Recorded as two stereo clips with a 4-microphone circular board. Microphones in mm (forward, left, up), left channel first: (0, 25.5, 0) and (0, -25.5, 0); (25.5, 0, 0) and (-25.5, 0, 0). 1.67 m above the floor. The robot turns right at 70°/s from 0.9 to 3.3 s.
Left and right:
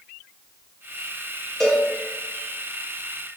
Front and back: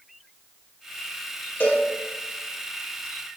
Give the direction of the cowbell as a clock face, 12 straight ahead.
12 o'clock.